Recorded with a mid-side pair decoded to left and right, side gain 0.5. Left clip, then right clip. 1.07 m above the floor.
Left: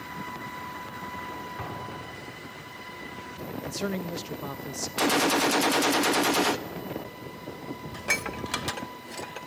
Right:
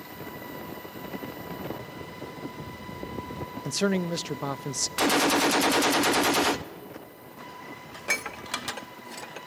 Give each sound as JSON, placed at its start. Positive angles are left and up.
{"t": 1.6, "sound": "an explosion", "azimuth_deg": 60, "distance_m": 3.0}
{"t": 3.6, "sound": "a man speaking", "azimuth_deg": -40, "distance_m": 0.7}
{"t": 5.0, "sound": "a gunshot", "azimuth_deg": -5, "distance_m": 0.9}
{"t": 7.9, "sound": "dishes clattering", "azimuth_deg": 5, "distance_m": 0.9}